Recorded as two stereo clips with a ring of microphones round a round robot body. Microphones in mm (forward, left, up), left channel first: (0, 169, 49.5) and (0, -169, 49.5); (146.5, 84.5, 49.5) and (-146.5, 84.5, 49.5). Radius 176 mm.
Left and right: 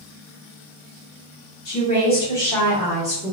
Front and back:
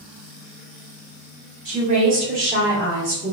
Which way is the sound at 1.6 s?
130° left.